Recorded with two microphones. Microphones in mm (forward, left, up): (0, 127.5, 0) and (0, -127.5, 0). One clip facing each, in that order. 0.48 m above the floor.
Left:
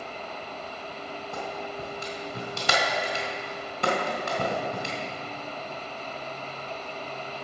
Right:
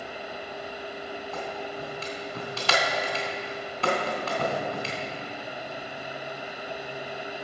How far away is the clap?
About 3 m.